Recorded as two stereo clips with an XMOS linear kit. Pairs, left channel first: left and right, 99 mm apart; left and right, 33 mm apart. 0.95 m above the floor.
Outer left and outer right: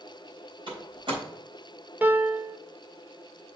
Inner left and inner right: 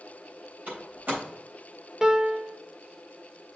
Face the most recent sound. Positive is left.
turn(degrees=-20)  # may be behind; listen again after turning